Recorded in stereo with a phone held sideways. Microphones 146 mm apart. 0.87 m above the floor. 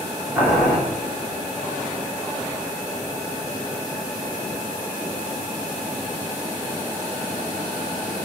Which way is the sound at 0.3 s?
5° right (ahead or behind).